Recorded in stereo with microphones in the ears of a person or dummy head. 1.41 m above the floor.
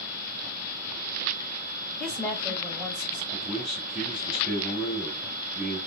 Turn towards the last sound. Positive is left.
turn(degrees=0)  # may be behind; listen again after turning